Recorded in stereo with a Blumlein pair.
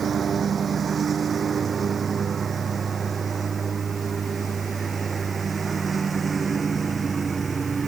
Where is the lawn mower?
20° right; by 7.9 s 15° right.